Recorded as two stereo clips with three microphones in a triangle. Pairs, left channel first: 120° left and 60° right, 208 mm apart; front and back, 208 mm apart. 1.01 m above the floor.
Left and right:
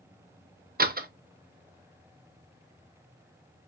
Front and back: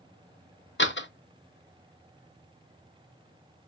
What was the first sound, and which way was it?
A door slam, 20° right.